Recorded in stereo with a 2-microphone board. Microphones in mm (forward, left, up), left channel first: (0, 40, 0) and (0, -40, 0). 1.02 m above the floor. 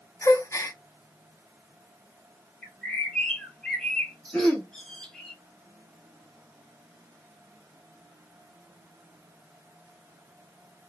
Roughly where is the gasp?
Left.